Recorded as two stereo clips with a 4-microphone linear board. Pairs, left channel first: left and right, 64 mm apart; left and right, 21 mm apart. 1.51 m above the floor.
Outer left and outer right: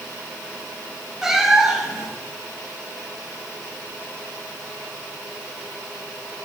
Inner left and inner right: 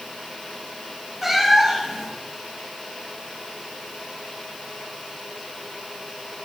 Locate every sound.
1.2 s a cat meowing: 5° right (ahead or behind), 0.9 m